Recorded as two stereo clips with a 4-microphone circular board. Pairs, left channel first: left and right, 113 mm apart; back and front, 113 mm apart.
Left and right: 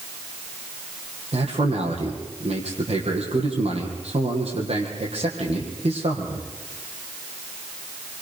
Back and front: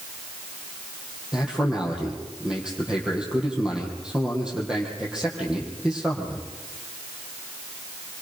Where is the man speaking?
80° right, 5 m.